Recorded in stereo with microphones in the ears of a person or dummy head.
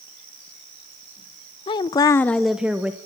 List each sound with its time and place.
1.7 s a woman speaking: 20° left (ahead or behind), 0.8 m; by 3.0 s 5° right (ahead or behind), 1.2 m